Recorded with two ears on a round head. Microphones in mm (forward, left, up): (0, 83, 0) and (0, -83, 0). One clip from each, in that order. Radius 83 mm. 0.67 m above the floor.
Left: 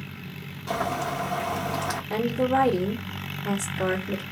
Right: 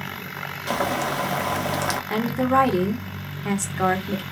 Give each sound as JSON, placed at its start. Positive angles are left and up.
{"t": 0.7, "sound": "boiling", "side_deg": -40, "distance_m": 0.9}
{"t": 2.1, "sound": "a woman speaking", "side_deg": -50, "distance_m": 1.8}